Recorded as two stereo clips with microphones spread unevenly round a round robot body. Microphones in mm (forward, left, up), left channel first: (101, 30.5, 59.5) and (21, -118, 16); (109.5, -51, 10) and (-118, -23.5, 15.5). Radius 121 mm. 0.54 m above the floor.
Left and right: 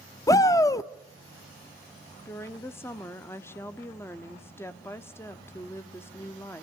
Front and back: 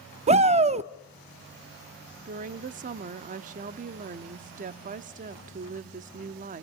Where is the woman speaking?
150° left, 0.8 m.